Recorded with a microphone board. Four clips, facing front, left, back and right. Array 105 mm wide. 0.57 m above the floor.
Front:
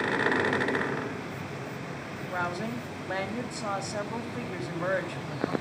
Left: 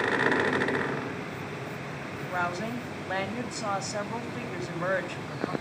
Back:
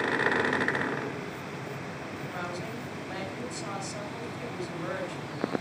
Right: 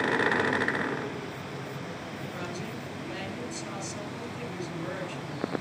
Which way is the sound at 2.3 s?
55° left.